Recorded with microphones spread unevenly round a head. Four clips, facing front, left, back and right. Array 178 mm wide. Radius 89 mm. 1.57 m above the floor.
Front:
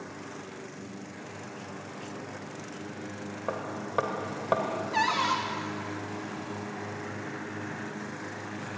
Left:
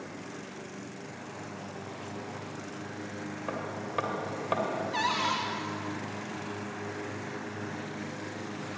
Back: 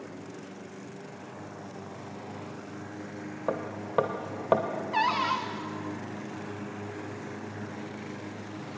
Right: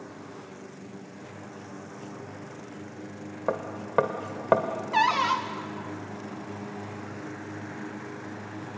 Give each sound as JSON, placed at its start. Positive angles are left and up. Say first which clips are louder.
{"t": 3.5, "sound": "hammering", "louder": "right 7 dB, back 2 dB", "azimuth_deg": -110, "distance_m": 1.8}
{"t": 4.9, "sound": "a cupboard door", "louder": "right 9 dB, back 1 dB", "azimuth_deg": -75, "distance_m": 1.8}